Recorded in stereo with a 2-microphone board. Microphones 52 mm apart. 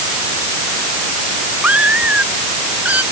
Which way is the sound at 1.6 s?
30° right (ahead or behind).